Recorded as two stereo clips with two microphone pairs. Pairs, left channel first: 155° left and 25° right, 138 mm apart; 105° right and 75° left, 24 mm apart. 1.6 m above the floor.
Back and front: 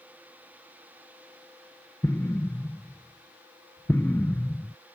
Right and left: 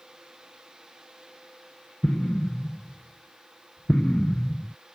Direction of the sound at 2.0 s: 135° right.